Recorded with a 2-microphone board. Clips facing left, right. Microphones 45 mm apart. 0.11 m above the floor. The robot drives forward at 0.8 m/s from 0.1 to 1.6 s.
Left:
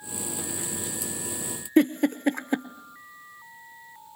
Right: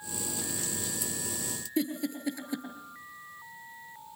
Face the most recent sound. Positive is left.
turn(degrees=50)  # may be behind; listen again after turning